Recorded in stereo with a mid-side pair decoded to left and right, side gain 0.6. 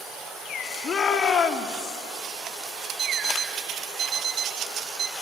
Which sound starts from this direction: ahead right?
An alarm clock, at 3.0 s.